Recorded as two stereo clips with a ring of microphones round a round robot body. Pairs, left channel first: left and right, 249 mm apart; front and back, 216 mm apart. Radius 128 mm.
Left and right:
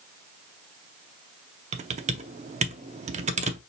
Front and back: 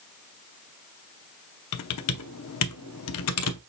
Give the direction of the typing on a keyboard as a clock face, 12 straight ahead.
1 o'clock.